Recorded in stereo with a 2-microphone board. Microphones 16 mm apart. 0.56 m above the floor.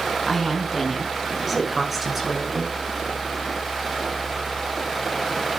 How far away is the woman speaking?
About 5.5 m.